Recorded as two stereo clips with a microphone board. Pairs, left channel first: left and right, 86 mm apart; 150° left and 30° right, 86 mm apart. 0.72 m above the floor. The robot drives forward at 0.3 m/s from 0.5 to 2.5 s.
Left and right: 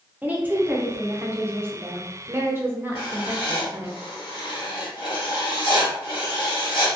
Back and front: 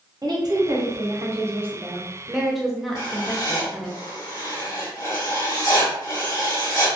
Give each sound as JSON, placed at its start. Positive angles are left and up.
{"t": 0.2, "sound": "a woman speaking", "azimuth_deg": -25, "distance_m": 0.7}
{"t": 3.0, "sound": "writing", "azimuth_deg": 110, "distance_m": 1.4}